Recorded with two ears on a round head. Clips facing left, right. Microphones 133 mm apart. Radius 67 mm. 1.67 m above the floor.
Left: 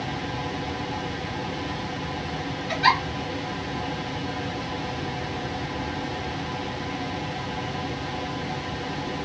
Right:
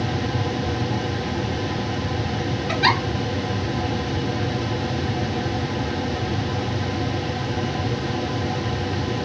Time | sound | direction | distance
2.7 | a giggle | 60° right (ahead or behind) | 0.8 m